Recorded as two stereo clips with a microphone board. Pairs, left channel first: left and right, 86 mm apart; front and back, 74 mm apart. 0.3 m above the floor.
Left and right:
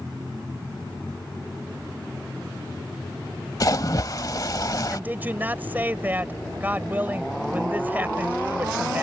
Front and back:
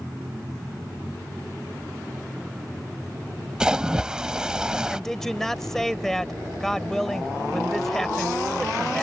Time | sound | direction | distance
3.6 | a splash | 105° left | ?
4.9 | a woman speaking | 80° right | ?